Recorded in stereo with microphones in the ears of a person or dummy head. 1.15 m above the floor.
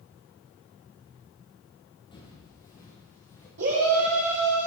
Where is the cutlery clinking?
I don't hear cutlery clinking.